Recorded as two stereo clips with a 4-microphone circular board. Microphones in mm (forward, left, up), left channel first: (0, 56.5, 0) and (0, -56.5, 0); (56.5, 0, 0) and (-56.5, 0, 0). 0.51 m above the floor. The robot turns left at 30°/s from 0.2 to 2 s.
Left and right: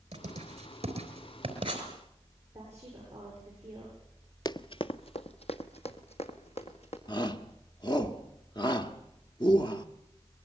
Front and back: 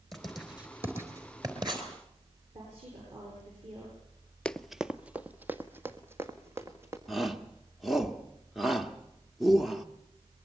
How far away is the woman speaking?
About 9.5 m.